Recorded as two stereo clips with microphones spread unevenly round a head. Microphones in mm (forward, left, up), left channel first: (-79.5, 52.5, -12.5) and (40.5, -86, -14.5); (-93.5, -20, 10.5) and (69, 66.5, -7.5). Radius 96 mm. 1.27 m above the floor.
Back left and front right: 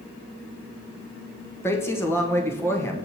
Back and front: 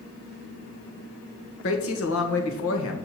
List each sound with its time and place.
1.6 s a woman speaking: 150° right, 1.7 m